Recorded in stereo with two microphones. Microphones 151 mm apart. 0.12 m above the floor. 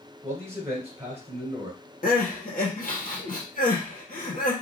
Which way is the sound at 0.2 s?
15° right (ahead or behind).